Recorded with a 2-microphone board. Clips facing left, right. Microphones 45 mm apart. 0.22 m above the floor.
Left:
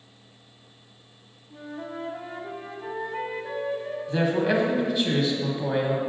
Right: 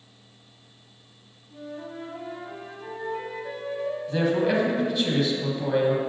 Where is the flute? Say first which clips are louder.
Left 1 dB; 20° left (ahead or behind), 0.8 m.